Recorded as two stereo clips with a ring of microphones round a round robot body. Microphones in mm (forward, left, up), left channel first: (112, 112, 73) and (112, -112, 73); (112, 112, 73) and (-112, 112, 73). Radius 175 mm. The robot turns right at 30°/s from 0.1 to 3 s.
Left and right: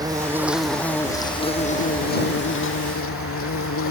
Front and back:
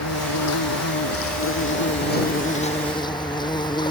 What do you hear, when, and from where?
0.0 s an insect: 15° right; by 3.9 s 70° left